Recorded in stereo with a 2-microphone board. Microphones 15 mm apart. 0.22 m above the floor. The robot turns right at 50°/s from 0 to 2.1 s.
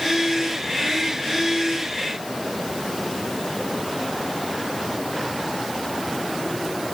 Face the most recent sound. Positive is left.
No sound to turn to.